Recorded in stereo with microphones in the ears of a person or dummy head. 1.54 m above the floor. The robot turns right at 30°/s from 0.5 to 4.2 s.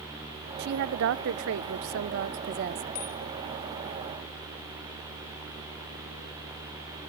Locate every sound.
0.6 s a woman speaking: 120° right, 0.7 m; by 2.8 s 50° right, 0.7 m
3.0 s a bicycle bell: 50° left (ahead or behind), 7 m; by 3.1 s 55° left (ahead or behind), 7 m